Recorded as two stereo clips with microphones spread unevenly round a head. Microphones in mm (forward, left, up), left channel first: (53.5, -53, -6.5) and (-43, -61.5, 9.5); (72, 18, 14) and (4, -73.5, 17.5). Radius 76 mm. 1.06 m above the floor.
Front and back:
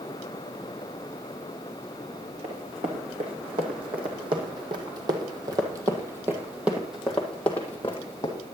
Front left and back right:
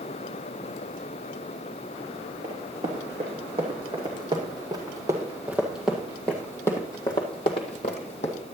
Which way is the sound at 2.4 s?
170° right.